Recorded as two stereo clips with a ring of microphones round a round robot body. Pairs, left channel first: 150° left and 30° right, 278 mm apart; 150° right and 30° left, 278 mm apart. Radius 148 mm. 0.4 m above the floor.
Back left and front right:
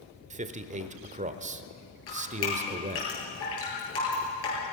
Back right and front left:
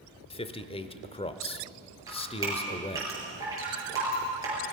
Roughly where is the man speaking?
Right.